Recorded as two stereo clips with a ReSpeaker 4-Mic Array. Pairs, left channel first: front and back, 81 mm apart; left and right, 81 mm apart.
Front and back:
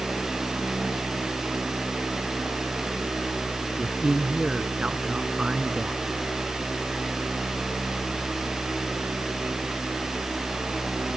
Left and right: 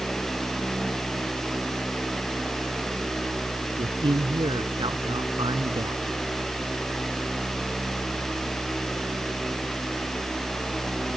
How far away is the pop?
No pop in this recording.